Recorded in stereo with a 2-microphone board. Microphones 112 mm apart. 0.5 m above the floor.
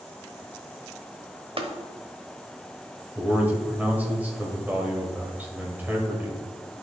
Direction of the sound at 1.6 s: 50° right (ahead or behind).